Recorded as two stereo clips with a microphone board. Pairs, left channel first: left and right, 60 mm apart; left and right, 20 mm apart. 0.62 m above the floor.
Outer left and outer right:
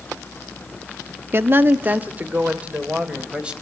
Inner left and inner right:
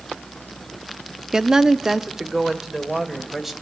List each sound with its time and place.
1.3 s a woman speaking: 40° right (ahead or behind), 0.8 m; by 3.5 s 15° right (ahead or behind), 3 m